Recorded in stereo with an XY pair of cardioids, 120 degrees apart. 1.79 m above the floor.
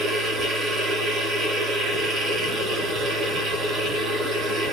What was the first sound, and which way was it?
A machine running, 55° right.